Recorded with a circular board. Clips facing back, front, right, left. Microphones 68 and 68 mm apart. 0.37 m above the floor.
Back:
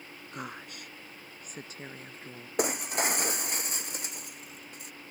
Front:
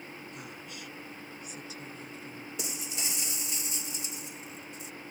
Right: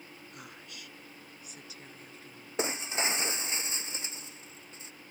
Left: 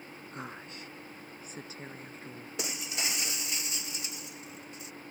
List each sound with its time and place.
0.3 s a woman speaking: 145° left; by 2.5 s 140° left
2.6 s breaking glass: 145° right